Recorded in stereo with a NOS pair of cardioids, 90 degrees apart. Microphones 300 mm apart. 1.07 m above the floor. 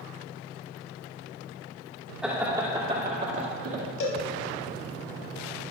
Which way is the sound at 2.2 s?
Straight ahead.